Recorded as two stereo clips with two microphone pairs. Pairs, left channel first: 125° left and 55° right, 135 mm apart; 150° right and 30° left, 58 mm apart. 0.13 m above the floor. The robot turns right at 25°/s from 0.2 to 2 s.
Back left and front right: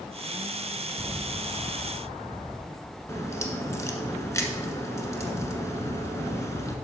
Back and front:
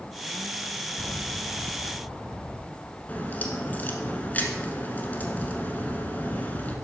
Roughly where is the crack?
Behind.